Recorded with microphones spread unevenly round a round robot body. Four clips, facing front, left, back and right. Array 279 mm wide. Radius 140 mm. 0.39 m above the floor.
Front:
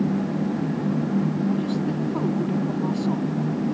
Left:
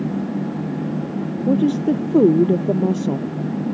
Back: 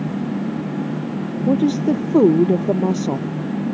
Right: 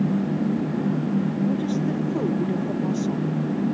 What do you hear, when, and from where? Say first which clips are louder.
1.5 s a woman speaking: left 7 dB, back 7 dB; 135° left